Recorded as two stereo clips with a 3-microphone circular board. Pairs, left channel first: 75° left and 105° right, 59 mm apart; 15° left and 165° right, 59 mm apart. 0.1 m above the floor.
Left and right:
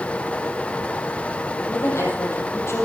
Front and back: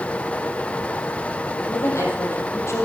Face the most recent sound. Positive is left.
turn(degrees=45)